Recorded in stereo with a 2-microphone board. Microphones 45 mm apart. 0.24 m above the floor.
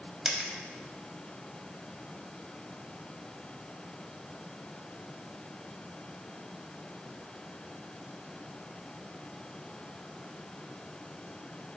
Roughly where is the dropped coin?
Centre.